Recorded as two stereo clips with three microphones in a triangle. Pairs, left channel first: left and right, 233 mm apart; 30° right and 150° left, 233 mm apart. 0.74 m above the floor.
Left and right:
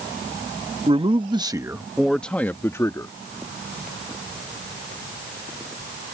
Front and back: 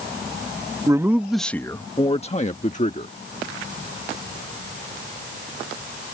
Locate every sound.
0.9 s a man speaking: 140° right; by 3.1 s 15° left